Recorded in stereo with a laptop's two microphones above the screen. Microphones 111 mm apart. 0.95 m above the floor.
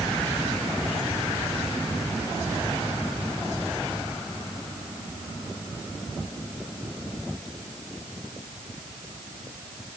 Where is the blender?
No blender in this recording.